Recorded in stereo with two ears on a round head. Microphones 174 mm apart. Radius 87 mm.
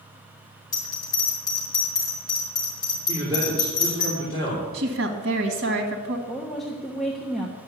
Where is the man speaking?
20° right (ahead or behind), 3.5 m.